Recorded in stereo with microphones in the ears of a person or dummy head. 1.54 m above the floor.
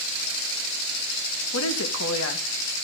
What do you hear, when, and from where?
1.5 s a woman speaking: 80° left, 1.8 m